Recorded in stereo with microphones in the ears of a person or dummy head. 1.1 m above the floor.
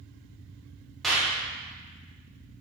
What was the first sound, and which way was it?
A clap, centre (ahead or behind).